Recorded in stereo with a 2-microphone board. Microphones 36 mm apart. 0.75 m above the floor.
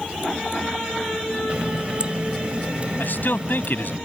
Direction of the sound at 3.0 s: 65° left (ahead or behind).